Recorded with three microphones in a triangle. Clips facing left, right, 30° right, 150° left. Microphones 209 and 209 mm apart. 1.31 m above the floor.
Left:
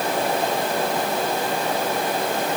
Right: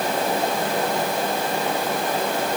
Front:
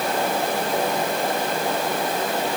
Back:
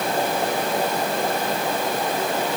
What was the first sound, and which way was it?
Only background noise.